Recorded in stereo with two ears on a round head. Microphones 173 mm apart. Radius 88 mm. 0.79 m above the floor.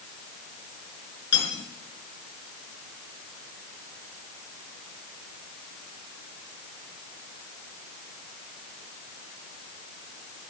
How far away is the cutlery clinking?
About 6 m.